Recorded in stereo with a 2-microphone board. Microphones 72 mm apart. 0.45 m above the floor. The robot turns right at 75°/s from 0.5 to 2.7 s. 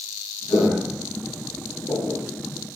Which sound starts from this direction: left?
Footsteps, at 0.5 s.